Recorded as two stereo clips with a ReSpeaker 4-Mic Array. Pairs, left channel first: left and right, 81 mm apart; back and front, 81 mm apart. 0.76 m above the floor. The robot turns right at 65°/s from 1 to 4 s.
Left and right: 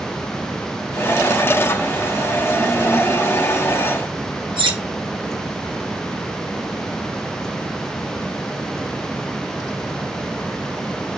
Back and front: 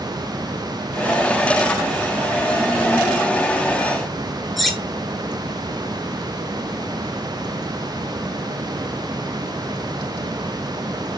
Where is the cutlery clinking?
90° right, 1.2 m.